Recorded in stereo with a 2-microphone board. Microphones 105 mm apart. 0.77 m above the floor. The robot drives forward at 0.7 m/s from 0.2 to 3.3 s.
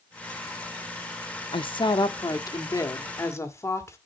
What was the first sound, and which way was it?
A woman speaking, 60° left (ahead or behind).